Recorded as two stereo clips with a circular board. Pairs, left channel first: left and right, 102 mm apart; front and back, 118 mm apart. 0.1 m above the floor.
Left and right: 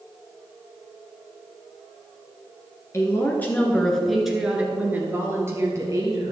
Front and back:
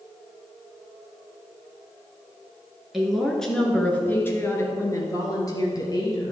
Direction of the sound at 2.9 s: 95° left.